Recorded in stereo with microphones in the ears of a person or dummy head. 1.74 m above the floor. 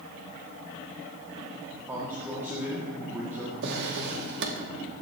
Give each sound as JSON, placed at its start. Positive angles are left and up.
{"t": 1.9, "sound": "a man speaking", "side_deg": -10, "distance_m": 2.0}
{"t": 3.6, "sound": "a drawer", "side_deg": -65, "distance_m": 2.0}